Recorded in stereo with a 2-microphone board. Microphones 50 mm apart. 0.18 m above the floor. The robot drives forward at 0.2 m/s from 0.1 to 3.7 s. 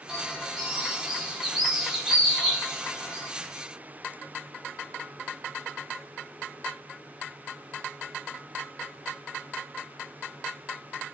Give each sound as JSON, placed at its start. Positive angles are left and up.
{"t": 0.1, "sound": "a bird", "side_deg": -5, "distance_m": 0.8}